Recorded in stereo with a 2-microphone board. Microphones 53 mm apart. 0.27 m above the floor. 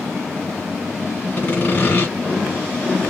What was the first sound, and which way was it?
Sawing, 35° left (ahead or behind).